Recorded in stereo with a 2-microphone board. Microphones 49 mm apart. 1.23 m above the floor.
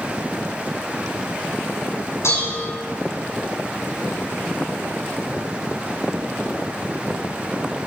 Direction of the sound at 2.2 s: 65° left (ahead or behind).